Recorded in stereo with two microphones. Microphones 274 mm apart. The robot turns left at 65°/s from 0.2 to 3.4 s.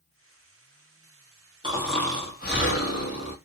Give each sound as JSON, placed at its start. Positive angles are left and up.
{"t": 1.6, "sound": "snoring", "azimuth_deg": -160, "distance_m": 1.1}